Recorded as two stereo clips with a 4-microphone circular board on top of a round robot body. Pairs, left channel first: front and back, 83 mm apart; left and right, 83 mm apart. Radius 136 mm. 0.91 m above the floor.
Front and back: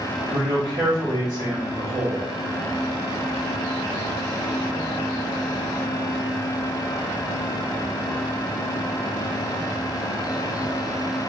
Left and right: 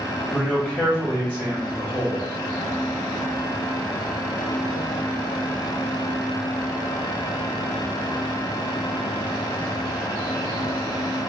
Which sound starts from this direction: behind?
A man speaking, at 0.3 s.